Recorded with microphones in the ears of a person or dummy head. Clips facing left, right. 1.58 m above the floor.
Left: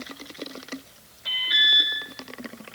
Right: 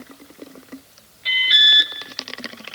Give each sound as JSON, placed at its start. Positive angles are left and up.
{"t": 1.2, "sound": "an alarm", "side_deg": -25, "distance_m": 6.0}